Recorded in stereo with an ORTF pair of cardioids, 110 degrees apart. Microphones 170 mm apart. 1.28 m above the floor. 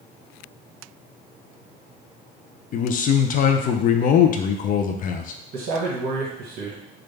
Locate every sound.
2.7 s a man speaking: 55° left, 0.5 m
5.5 s a man speaking: 65° right, 1.2 m